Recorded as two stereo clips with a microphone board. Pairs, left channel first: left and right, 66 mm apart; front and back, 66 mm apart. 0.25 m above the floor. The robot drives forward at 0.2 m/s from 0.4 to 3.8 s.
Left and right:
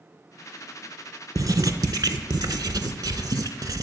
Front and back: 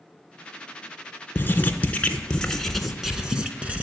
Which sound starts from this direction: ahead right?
Writing, at 1.4 s.